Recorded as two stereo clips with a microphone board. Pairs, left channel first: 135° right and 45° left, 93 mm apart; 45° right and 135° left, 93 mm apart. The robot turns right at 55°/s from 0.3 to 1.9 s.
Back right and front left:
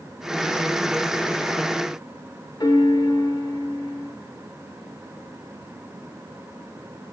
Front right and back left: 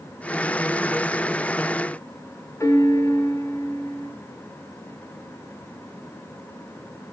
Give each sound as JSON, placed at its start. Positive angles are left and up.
{"t": 2.6, "sound": "a piano", "azimuth_deg": -100, "distance_m": 4.0}